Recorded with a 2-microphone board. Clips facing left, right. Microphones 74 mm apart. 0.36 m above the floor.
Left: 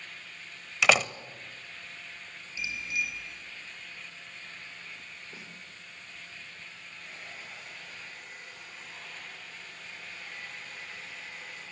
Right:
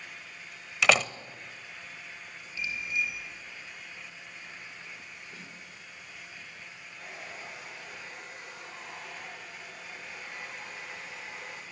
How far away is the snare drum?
About 9 m.